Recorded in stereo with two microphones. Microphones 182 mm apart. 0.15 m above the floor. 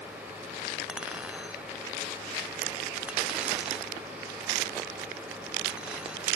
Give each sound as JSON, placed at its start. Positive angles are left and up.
{"t": 0.9, "sound": "a clink", "side_deg": -5}